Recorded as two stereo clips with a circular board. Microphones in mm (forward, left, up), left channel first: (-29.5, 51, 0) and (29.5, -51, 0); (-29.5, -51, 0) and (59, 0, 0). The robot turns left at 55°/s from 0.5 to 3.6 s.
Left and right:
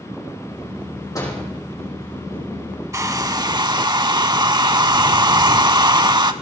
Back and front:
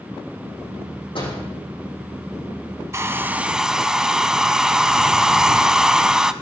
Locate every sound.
1.1 s a door slam: straight behind, 7 m; by 1.4 s 165° left, 7 m
2.9 s a hair dryer: 15° right, 0.5 m; by 6.3 s 50° right, 0.5 m